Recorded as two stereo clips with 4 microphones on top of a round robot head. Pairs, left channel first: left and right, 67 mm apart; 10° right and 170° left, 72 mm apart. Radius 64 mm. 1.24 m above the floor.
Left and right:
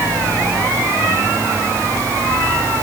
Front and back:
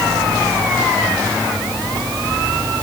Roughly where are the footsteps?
No footsteps in this recording.